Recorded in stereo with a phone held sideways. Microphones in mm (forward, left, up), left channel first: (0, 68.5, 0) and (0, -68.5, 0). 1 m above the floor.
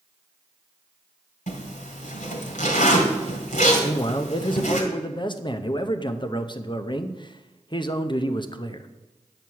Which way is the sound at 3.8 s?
35° left (ahead or behind).